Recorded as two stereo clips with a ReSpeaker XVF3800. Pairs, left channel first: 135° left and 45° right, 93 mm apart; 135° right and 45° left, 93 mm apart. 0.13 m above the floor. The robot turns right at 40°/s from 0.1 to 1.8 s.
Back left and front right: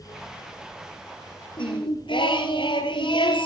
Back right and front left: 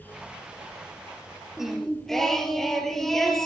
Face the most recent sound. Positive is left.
turn(degrees=140)